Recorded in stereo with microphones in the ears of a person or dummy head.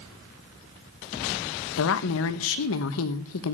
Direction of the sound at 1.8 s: 70° left (ahead or behind).